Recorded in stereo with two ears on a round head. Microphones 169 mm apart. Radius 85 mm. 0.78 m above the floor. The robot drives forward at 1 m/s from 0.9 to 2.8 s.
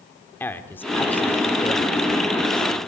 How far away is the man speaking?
About 2 m.